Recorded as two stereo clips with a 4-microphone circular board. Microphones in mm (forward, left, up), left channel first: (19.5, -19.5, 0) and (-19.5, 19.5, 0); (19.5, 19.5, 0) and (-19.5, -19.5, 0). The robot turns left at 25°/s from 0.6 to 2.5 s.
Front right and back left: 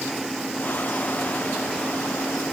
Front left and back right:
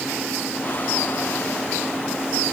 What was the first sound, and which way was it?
Only background noise.